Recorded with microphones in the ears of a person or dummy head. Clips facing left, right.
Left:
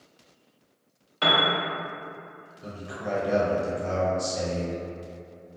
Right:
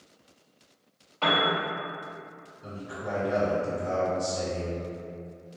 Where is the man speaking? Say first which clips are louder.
Left 2 dB; 70° left (ahead or behind), 1.2 m.